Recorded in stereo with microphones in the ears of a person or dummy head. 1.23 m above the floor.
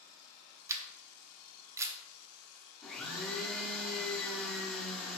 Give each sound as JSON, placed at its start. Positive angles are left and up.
{"t": 0.7, "sound": "a camera shutter", "side_deg": -20, "distance_m": 0.5}
{"t": 2.8, "sound": "a blender", "side_deg": 5, "distance_m": 0.7}